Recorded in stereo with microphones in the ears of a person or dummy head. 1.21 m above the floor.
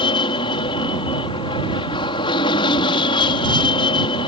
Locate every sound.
0.0 s an aircraft: 25° left (ahead or behind)